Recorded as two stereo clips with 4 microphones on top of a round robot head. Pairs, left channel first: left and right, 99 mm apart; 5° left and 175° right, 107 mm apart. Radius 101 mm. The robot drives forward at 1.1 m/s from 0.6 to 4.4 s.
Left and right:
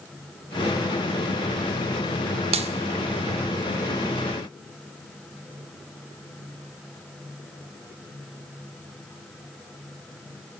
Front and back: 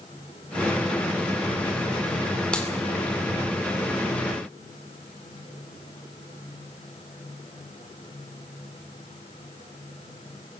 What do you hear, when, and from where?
2.5 s a clap: 75° right, 2 m; by 2.7 s 80° right, 2 m